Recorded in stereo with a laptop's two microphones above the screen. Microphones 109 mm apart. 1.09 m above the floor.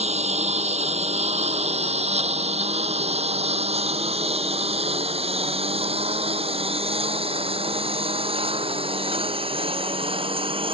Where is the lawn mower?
80° right; by 10.7 s 55° right (ahead or behind).